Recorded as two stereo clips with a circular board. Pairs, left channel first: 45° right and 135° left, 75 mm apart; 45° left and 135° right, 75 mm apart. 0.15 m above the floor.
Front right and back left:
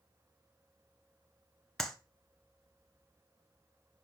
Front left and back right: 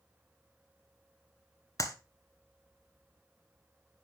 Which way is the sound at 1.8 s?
40° left.